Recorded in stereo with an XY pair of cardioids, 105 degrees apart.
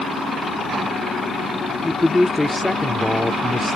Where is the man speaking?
15° left.